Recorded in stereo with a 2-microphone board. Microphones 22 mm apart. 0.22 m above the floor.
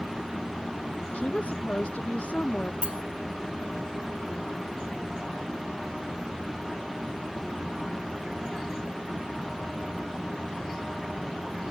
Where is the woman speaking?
80° left.